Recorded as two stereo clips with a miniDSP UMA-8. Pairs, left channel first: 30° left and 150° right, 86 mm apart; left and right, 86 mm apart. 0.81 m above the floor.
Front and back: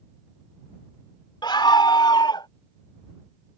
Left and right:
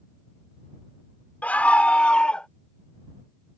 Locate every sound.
1.4 s a scream: 20° left; by 2.5 s 10° left